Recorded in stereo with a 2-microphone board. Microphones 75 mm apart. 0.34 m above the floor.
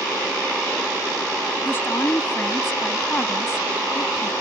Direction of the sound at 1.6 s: 30° left (ahead or behind).